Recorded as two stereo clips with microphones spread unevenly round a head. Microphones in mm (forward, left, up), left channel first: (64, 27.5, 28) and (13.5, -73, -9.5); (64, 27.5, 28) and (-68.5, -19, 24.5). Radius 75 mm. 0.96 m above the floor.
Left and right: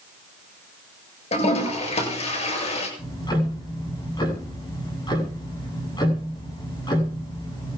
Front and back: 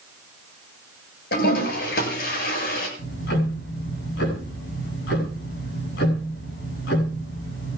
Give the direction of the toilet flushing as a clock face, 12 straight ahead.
11 o'clock.